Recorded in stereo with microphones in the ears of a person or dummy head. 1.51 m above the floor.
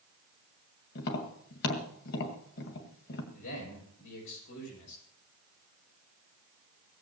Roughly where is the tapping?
Left.